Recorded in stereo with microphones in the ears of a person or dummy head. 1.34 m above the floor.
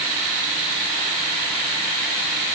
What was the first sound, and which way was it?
Only background noise.